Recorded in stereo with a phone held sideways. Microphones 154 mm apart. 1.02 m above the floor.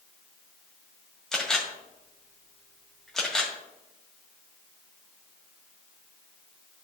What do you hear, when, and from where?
1.3 s a camera shutter: 5° left (ahead or behind), 1.7 m